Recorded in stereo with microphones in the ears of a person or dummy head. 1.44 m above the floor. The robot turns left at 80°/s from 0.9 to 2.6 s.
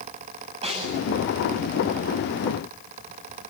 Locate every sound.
0.6 s a snare drum: 35° right (ahead or behind), 7.5 m; by 1.1 s 25° right (ahead or behind), 7.5 m